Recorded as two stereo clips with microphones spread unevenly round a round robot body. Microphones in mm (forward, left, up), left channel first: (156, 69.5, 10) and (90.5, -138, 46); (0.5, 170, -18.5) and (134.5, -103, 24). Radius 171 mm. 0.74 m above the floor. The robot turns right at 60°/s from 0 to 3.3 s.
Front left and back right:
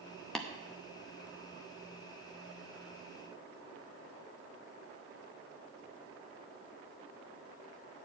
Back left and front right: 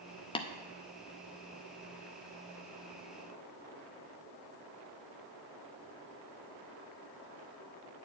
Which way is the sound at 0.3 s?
135° left.